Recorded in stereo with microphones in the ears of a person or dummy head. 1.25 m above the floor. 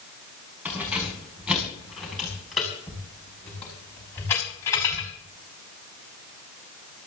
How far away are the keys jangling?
About 6.5 m.